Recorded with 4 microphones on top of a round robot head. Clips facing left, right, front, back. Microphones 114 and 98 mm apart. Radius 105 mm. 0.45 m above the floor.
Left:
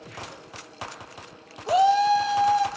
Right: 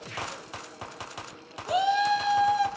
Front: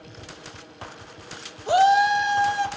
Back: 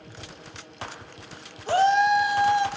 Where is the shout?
60° left, 1.2 m; by 2.7 s 125° left, 1.2 m.